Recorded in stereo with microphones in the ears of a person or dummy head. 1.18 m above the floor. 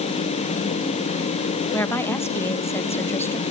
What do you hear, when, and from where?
1.7 s a woman speaking: 10° left (ahead or behind), 1.4 m